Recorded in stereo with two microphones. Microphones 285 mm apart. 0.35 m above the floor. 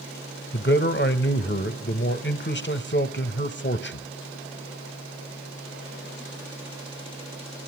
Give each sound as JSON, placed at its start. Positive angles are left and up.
{"t": 0.5, "sound": "a man speaking", "side_deg": 40, "distance_m": 1.1}